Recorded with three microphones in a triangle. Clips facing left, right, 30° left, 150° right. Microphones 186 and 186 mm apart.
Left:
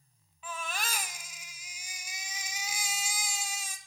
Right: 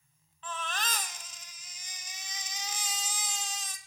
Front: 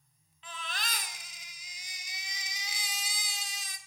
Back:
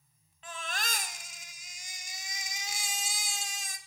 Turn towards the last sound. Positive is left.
turn(degrees=170)